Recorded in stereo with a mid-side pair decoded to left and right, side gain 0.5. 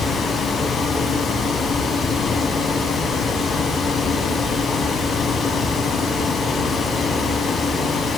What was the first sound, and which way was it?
A fan, 55° left.